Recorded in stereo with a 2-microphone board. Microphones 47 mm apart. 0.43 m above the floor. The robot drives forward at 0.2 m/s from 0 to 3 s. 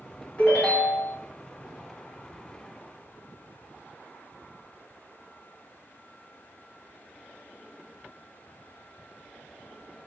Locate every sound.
0.4 s a ringtone: 30° left (ahead or behind), 1.3 m; by 1.1 s 25° left (ahead or behind), 1.5 m